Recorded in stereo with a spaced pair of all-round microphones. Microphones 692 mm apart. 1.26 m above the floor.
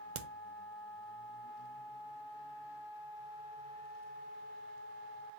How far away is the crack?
About 0.5 m.